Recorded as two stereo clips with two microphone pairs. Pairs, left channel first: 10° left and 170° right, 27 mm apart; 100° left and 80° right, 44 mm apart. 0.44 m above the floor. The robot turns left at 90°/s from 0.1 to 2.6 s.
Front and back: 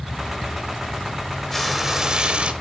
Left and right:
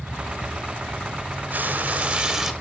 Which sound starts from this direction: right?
Frying, at 1.5 s.